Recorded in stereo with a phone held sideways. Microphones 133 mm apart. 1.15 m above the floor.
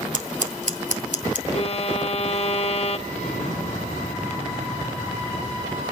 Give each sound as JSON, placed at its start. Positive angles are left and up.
{"t": 0.1, "sound": "scissors", "side_deg": -65, "distance_m": 1.7}
{"t": 1.5, "sound": "a violin", "side_deg": 45, "distance_m": 1.3}
{"t": 3.1, "sound": "an explosion", "side_deg": 55, "distance_m": 6.5}